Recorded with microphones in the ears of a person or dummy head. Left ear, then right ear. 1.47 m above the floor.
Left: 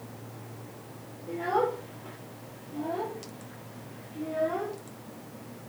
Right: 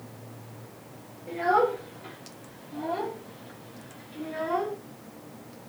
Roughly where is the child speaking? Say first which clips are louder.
Right 4 dB; right.